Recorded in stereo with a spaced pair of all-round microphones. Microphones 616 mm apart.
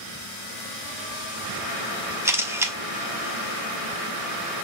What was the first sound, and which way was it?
A camera shutter, 5° right (ahead or behind).